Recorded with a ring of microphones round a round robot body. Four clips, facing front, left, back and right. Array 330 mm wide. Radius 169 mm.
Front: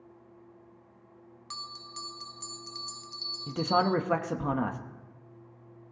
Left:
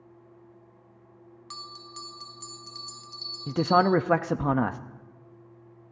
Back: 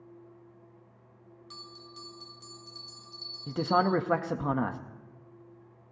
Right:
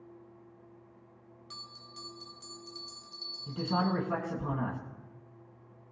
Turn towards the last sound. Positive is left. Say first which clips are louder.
# left 10 dB, even
turn(degrees=95)